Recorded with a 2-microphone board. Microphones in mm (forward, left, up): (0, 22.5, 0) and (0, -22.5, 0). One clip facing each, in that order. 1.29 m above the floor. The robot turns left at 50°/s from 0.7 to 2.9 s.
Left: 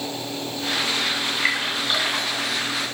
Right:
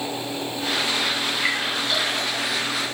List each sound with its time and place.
1.4 s a splash: 10° left (ahead or behind), 3 m; by 2.4 s 55° left (ahead or behind), 3 m